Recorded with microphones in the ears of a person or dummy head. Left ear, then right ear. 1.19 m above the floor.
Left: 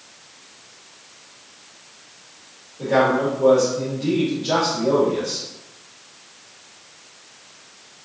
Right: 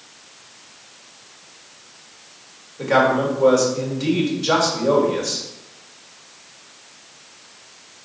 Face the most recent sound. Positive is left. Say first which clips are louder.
# right 1 dB
turn(degrees=-65)  # may be behind; listen again after turning